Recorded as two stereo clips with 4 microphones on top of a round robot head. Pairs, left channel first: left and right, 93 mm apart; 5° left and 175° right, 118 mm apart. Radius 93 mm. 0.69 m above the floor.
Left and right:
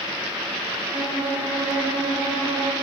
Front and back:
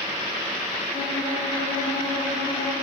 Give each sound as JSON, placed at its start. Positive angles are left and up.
{"t": 0.9, "sound": "a violin", "azimuth_deg": -15, "distance_m": 1.9}